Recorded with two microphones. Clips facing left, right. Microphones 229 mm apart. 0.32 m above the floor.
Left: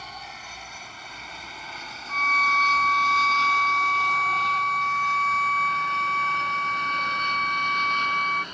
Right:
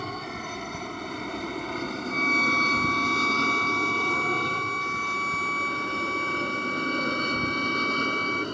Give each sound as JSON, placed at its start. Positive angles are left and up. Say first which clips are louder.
{"t": 0.0, "sound": "an aircraft", "louder": "right 11 dB", "side_deg": -60}
{"t": 2.1, "sound": "a violin", "louder": "right 5 dB", "side_deg": -10}